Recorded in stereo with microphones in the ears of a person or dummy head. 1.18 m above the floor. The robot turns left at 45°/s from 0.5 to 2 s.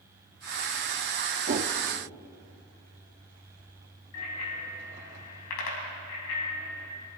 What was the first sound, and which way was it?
A whoosh, 45° right (ahead or behind).